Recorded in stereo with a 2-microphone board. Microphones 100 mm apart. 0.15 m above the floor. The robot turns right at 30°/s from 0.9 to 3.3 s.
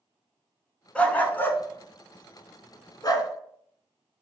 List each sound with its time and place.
0.9 s a dog barking: 10° left (ahead or behind), 0.5 m; by 3.3 s 40° left (ahead or behind), 0.5 m